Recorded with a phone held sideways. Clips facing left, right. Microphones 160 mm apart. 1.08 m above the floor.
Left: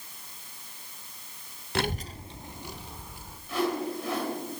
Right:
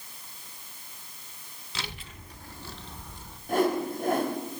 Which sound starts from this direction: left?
A child speaking, at 1.8 s.